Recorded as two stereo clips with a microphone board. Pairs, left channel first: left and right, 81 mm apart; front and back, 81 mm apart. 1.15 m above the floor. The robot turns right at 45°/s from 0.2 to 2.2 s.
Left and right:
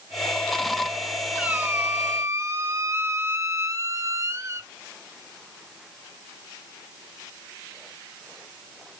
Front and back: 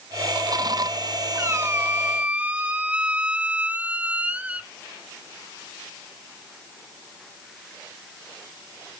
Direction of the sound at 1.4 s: 155° right.